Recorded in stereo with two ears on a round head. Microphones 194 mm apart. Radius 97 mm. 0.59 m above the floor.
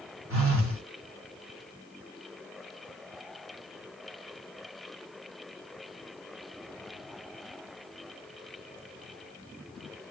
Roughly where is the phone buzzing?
Right.